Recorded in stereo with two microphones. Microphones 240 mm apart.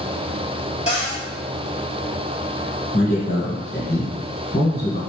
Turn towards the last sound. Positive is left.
turn(degrees=35)  # may be behind; listen again after turning